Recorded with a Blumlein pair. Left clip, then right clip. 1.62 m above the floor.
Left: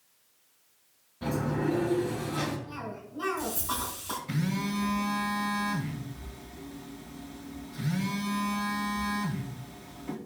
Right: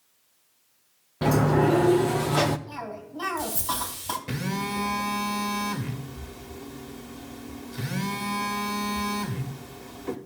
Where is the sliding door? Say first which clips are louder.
Right 9 dB; 55° right, 0.7 m.